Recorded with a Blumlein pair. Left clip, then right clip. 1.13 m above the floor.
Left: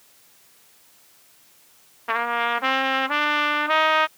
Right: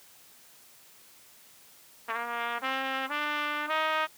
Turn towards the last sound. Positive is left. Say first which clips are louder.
# left 9 dB
turn(degrees=25)